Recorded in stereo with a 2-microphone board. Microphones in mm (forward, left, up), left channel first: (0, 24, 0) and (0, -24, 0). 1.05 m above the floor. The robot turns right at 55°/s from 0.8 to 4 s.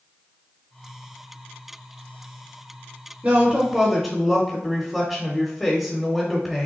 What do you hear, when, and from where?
3.2 s a woman speaking: 40° right, 1.0 m; by 6.7 s straight ahead, 1.0 m